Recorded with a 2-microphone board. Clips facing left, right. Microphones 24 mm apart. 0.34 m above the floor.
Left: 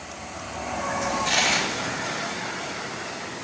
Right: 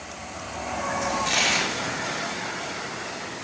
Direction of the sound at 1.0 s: Centre (ahead or behind).